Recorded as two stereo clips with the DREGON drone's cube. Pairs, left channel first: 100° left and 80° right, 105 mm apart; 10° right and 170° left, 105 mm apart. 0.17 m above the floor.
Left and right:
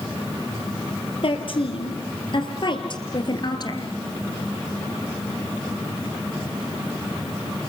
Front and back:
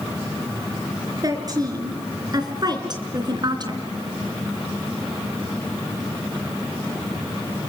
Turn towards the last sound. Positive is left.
turn(degrees=135)